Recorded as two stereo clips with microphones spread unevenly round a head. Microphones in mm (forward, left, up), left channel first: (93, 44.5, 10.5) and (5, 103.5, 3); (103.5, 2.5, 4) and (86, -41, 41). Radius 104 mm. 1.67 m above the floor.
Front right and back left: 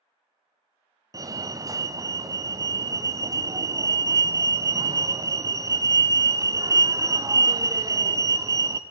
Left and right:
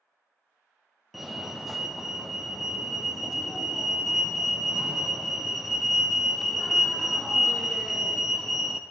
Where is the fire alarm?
110° left, 0.5 m.